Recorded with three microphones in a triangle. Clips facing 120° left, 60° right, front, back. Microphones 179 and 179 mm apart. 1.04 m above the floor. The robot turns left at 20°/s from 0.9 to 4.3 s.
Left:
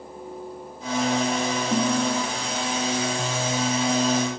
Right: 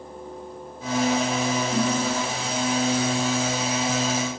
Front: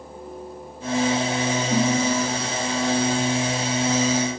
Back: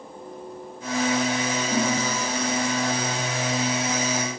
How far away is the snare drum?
About 6.5 m.